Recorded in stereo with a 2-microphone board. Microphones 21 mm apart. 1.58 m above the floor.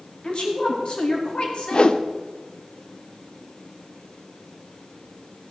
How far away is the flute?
No flute in this recording.